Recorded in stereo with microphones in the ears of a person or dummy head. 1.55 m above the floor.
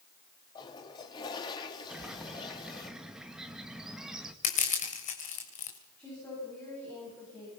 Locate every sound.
0.6 s a toilet flushing: 25° left (ahead or behind), 2.5 m
1.9 s a bird: 5° right (ahead or behind), 1.8 m
4.4 s crushing: 40° left (ahead or behind), 4 m
6.0 s a woman speaking: 10° left (ahead or behind), 10 m